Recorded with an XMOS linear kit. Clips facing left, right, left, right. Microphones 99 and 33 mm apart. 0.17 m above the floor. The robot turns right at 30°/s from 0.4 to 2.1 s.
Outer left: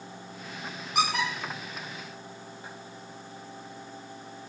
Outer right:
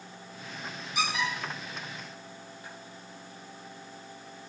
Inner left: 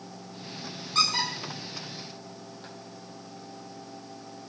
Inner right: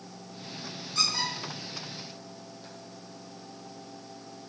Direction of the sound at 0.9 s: 60° left (ahead or behind).